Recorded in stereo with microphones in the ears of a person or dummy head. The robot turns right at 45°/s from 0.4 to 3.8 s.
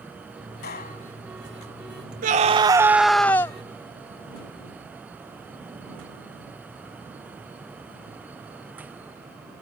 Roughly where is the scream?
Ahead right.